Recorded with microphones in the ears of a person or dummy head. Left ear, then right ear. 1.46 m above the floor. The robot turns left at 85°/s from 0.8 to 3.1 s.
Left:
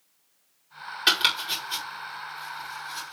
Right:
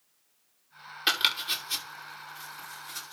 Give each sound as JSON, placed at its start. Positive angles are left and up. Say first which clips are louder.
{"t": 1.1, "sound": "chopping", "louder": "left 3 dB", "side_deg": 5, "distance_m": 5.0}